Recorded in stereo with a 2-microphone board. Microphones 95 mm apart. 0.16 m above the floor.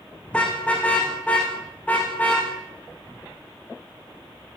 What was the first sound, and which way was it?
A car horn, 10° left (ahead or behind).